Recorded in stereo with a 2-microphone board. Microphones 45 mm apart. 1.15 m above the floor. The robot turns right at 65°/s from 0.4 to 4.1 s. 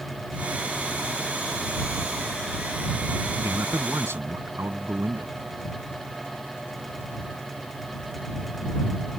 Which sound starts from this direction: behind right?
A man speaking, at 3.4 s.